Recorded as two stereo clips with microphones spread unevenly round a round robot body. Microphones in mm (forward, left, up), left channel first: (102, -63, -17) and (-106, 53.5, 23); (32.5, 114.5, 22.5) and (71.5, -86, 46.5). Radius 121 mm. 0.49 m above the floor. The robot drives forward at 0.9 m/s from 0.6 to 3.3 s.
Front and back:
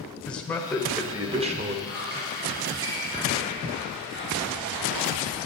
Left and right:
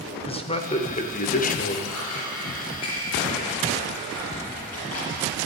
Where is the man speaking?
50° left, 1.6 m; by 1.8 s 100° left, 1.4 m.